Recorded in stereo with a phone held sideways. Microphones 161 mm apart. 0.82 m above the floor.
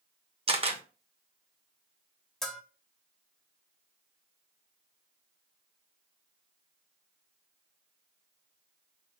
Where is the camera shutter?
35° right (ahead or behind), 0.7 m.